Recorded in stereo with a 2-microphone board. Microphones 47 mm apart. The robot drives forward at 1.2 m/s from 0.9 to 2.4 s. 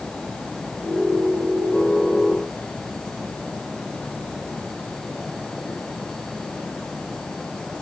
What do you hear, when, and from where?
Only background noise.